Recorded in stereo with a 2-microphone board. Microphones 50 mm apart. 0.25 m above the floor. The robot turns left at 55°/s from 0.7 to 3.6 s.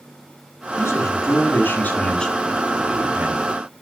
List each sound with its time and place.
0.8 s a man speaking: 100° left, 2 m; by 3.8 s 55° right, 2 m